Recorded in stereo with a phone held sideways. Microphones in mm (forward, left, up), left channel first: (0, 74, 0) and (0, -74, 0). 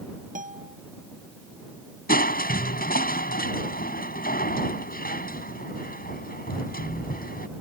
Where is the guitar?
60° right (ahead or behind).